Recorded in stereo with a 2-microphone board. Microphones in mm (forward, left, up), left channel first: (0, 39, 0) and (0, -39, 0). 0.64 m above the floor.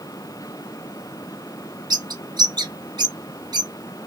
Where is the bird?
60° right (ahead or behind), 1.3 m.